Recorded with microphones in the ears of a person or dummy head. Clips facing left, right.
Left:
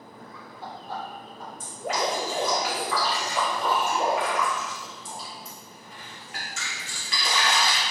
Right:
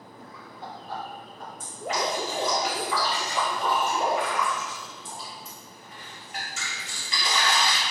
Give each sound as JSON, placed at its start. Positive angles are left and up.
{"t": 0.2, "sound": "laughter", "side_deg": -5, "distance_m": 1.4}
{"t": 1.6, "sound": "dripping", "side_deg": 55, "distance_m": 1.9}